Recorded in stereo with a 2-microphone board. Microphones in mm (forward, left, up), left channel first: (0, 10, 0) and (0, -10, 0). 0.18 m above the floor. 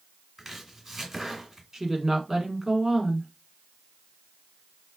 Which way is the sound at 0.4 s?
15° right (ahead or behind).